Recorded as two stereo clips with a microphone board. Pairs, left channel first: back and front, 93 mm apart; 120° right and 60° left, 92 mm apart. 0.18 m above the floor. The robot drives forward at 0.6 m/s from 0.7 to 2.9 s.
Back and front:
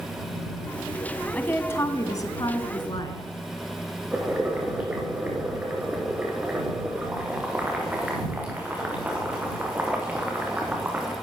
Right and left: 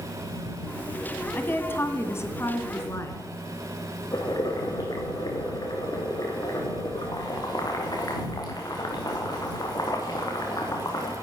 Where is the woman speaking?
140° right, 1.0 m; by 3.2 s 170° right, 1.6 m.